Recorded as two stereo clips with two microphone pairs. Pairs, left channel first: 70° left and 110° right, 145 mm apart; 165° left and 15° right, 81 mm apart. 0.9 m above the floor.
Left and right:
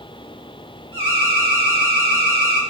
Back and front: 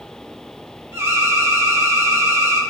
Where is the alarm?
60° right, 3 m.